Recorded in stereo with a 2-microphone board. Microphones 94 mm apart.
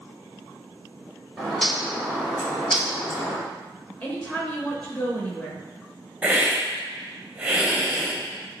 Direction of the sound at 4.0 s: 20° left (ahead or behind).